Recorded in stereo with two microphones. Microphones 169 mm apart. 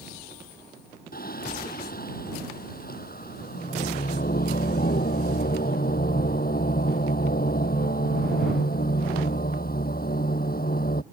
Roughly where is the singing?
Left.